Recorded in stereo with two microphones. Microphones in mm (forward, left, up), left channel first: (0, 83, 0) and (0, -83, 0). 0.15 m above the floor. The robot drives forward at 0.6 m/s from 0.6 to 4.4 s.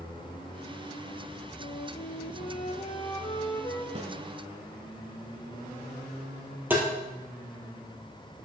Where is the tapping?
15° right (ahead or behind), 2 m.